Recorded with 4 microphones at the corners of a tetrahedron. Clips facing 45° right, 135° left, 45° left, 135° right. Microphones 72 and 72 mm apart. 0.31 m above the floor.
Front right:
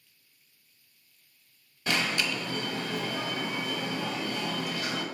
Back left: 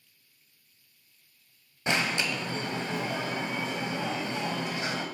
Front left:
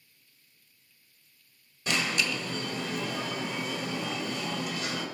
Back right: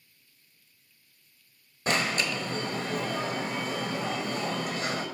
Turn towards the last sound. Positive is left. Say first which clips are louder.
# back left 1 dB, back right 2 dB
turn(degrees=-165)